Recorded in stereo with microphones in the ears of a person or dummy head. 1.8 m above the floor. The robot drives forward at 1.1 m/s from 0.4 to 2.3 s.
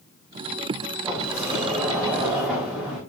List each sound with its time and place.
1.0 s a sliding door: 10° right (ahead or behind), 3 m; by 3.0 s 5° right (ahead or behind), 4.5 m